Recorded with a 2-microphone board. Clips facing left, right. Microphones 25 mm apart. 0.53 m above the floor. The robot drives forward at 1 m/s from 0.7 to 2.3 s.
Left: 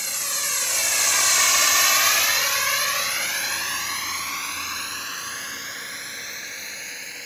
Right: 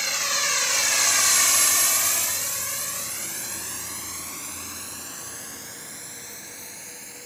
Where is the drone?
20° right (ahead or behind); by 7.3 s 35° left (ahead or behind).